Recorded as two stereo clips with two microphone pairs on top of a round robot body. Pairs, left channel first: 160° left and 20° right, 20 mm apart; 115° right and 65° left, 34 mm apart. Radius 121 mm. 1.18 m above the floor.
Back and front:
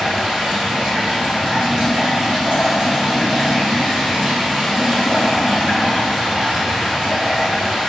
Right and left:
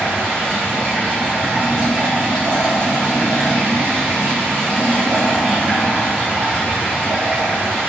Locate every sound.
0.0 s running water: 10° left, 1.6 m